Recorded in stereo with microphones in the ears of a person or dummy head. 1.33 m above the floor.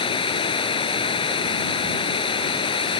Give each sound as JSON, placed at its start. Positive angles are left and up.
{"t": 0.0, "sound": "running water", "side_deg": 25}